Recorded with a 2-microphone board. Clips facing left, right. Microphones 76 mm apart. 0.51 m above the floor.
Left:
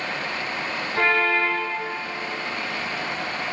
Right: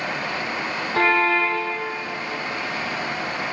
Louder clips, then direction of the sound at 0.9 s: Right 2 dB; 55° right (ahead or behind).